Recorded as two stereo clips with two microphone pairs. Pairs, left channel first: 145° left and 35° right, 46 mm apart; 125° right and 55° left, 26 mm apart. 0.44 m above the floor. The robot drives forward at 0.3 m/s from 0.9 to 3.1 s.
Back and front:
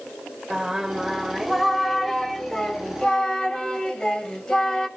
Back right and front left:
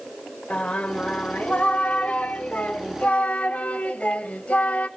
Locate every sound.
0.5 s singing: 115° right, 0.9 m; by 4.9 s 145° right, 1.2 m